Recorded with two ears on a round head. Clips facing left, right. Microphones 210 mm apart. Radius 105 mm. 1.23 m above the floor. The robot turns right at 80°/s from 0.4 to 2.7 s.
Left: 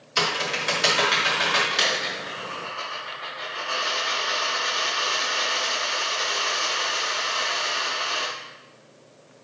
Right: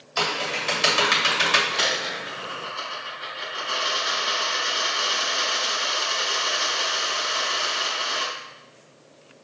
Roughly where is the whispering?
No whispering in this recording.